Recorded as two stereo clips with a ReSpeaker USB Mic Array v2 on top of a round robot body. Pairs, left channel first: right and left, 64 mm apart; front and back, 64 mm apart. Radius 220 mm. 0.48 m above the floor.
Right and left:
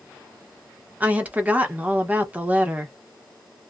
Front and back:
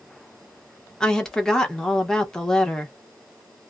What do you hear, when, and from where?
1.0 s a woman speaking: 65° left, 1.2 m